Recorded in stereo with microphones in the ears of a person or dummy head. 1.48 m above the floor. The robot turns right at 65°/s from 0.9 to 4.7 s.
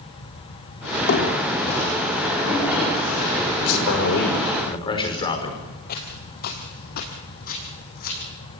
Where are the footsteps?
45° left (ahead or behind), 2 m; by 8.3 s 50° left (ahead or behind), 3.5 m.